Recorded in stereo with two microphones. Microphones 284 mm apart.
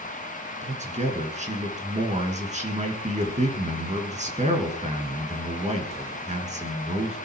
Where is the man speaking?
25° right (ahead or behind), 3 m.